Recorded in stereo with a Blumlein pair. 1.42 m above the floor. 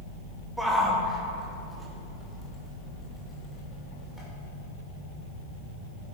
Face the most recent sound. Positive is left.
turn(degrees=5)